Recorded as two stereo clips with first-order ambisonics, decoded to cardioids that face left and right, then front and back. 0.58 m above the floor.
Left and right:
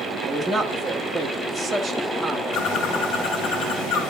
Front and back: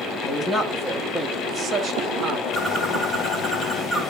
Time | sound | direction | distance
0.2 | a man speaking | 5° right | 1.4 m
2.5 | a bird | 70° left | 2.5 m